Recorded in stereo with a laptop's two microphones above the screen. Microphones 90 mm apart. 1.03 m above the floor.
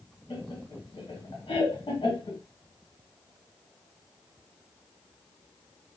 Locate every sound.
0.3 s laughter: 70° left (ahead or behind), 1.0 m